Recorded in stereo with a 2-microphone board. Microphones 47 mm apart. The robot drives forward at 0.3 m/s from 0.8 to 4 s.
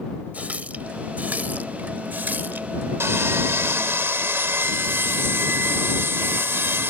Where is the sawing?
65° right (ahead or behind); by 6.9 s 55° right (ahead or behind).